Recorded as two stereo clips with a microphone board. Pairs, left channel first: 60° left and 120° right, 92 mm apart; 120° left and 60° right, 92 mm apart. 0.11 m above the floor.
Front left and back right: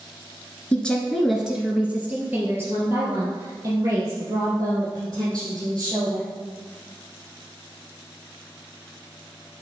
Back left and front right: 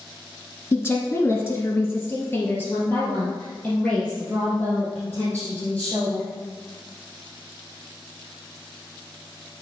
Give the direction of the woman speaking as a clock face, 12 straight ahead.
8 o'clock.